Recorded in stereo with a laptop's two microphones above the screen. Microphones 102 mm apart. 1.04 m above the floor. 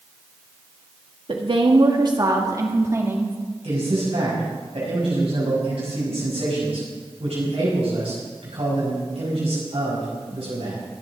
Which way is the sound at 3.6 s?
80° right.